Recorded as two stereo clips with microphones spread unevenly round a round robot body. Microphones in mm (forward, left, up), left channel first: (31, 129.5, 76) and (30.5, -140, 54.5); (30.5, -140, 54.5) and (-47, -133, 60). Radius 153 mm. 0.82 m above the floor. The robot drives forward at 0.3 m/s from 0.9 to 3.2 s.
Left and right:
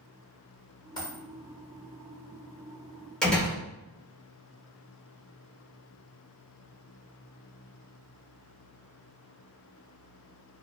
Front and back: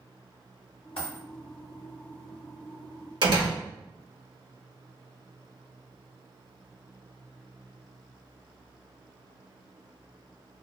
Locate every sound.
1.0 s a dropped coin: 15° left, 1.1 m
3.2 s a door slam: straight behind, 1.0 m